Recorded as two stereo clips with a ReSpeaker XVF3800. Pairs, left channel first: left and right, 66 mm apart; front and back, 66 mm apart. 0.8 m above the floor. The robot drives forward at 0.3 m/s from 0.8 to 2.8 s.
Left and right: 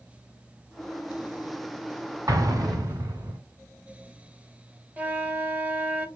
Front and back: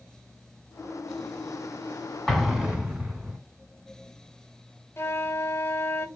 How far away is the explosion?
About 0.9 m.